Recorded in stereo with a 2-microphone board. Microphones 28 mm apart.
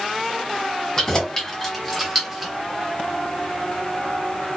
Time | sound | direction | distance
1.0 | keys jangling | 20° left (ahead or behind) | 1.1 m